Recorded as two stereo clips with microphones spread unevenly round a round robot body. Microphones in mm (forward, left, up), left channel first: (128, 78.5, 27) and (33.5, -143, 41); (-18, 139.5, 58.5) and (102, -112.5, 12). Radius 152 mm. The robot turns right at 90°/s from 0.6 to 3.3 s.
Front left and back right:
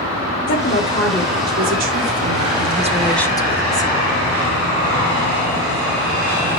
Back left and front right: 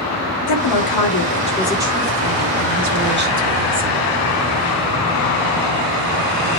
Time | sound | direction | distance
0.5 | a woman speaking | 110° left | 2.5 m